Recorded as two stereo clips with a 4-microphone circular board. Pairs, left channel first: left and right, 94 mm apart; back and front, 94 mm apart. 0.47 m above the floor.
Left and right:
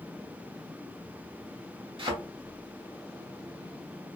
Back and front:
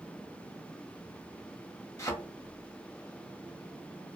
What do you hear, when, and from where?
2.0 s a thud: 120° right, 0.9 m